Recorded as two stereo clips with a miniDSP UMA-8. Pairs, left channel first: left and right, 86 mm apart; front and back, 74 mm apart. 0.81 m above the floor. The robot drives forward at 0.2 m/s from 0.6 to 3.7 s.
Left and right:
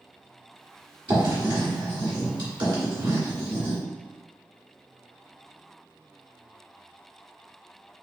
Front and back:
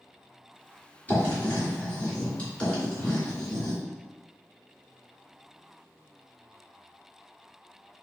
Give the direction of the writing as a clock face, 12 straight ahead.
2 o'clock.